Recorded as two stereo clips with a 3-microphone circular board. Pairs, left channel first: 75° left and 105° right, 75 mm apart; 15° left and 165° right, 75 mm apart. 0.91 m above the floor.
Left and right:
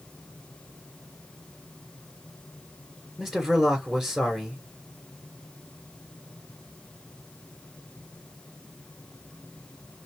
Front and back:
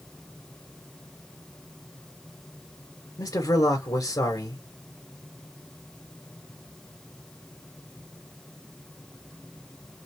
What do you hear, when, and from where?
3.2 s a man speaking: 15° right, 2.5 m